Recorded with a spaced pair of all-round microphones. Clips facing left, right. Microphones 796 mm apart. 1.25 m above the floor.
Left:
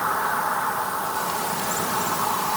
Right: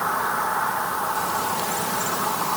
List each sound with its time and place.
Only background noise.